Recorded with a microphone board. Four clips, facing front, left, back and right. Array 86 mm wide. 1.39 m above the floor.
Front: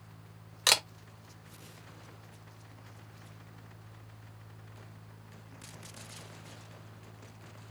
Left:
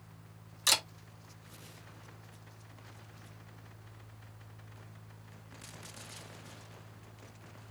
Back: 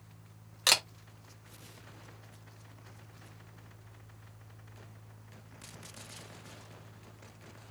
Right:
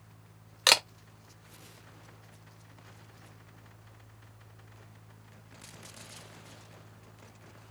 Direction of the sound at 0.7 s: 85° right.